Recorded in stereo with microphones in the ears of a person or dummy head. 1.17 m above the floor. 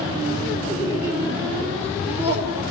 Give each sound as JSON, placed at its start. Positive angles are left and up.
{"t": 0.7, "sound": "laughter", "side_deg": -20, "distance_m": 3.0}